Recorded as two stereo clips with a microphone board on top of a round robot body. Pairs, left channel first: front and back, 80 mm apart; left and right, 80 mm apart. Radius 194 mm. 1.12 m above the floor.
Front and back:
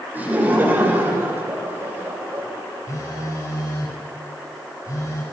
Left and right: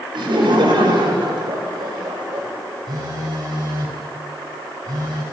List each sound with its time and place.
0.1 s laughter: 110° right, 6.5 m; by 2.5 s 120° right, 7 m
2.9 s a phone buzzing: 50° right, 6 m